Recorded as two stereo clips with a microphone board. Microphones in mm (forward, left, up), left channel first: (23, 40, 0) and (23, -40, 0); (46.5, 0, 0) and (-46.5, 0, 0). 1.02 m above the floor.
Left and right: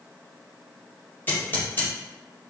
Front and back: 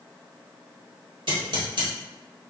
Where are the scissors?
155° left, 2 m.